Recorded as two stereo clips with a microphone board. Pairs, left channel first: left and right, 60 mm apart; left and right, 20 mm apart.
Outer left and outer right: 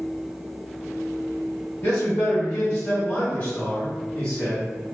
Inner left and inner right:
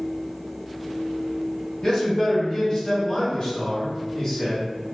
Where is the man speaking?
30° left (ahead or behind), 1.0 m; by 4.8 s 10° left (ahead or behind), 1.8 m.